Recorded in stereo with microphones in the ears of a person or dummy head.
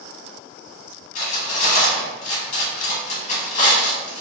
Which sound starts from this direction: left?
Cutlery clinking, at 1.1 s.